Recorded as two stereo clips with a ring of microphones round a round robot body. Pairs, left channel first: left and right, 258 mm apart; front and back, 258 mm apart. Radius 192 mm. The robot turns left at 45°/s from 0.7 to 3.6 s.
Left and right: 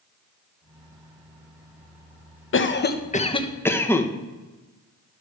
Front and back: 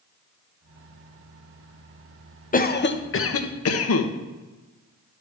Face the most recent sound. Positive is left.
turn(degrees=10)